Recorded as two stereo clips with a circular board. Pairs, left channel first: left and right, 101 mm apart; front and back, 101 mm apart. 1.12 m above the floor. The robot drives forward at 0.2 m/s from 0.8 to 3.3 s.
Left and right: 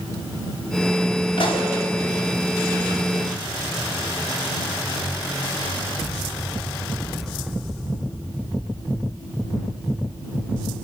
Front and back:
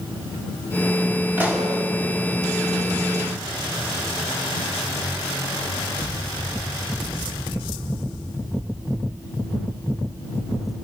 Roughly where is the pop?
Left.